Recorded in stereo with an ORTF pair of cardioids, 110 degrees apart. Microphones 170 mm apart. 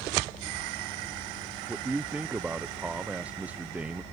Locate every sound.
1.7 s a man speaking: 10° right